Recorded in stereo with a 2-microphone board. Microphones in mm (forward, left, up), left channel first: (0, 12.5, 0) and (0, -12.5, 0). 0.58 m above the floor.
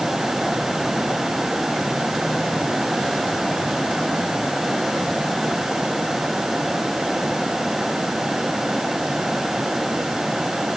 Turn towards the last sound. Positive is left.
No sound to turn to.